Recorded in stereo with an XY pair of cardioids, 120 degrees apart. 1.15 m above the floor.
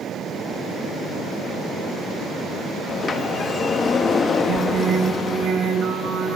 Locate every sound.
2.9 s a sliding door: 40° left, 1.1 m
4.5 s singing: 60° right, 3 m